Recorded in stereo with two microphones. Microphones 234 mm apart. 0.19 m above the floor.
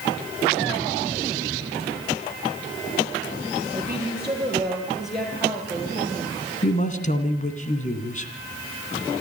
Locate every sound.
3.7 s a woman speaking: 10° right (ahead or behind), 4.5 m; by 6.4 s centre (ahead or behind), 5.5 m
6.6 s a man speaking: 35° left (ahead or behind), 2.5 m